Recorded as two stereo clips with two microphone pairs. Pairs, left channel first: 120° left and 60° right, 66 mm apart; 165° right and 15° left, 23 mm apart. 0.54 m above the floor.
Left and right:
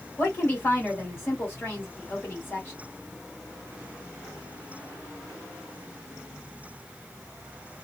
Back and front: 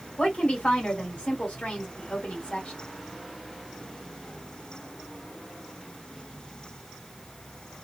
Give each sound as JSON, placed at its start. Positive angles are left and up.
{"t": 0.2, "sound": "a woman speaking", "azimuth_deg": 175, "distance_m": 2.0}